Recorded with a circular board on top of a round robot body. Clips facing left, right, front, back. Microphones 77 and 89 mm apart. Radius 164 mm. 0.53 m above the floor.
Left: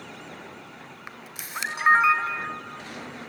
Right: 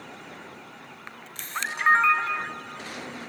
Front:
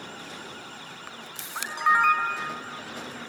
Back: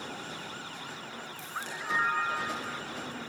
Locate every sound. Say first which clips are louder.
1.1 s a camera shutter: right 2 dB, front 1 dB; 10° left, 1.9 m